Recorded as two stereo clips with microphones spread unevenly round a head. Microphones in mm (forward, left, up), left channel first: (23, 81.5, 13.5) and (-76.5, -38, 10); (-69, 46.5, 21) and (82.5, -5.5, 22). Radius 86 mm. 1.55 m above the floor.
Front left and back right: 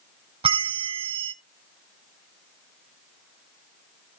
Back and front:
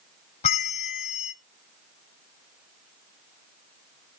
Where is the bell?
170° right, 0.6 m.